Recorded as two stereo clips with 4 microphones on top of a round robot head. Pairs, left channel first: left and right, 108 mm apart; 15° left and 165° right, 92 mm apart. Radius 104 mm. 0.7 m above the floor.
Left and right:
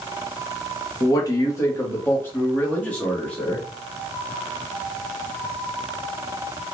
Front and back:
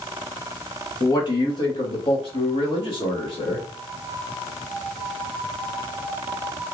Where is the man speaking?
50° left, 1.0 m; by 3.6 s 10° left, 2 m.